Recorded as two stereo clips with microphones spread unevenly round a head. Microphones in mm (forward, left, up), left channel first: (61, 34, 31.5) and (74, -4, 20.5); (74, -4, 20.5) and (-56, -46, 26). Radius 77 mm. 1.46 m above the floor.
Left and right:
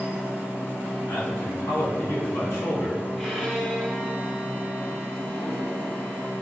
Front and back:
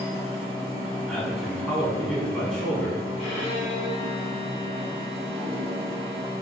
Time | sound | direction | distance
0.0 | a machine running | 145° left | 1.0 m
1.1 | a man speaking | 105° left | 1.3 m
3.2 | a violin | 35° left | 1.8 m